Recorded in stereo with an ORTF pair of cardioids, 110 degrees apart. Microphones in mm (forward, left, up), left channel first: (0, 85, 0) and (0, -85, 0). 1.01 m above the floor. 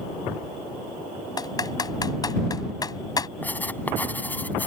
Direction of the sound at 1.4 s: 25° left.